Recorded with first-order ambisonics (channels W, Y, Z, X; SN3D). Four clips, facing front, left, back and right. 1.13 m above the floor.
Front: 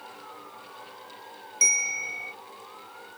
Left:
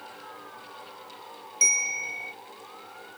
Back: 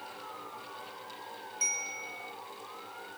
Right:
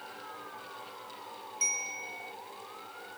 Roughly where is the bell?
Ahead left.